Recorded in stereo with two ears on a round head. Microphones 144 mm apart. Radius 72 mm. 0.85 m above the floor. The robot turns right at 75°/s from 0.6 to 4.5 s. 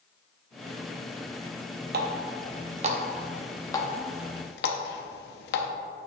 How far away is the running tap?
About 0.7 m.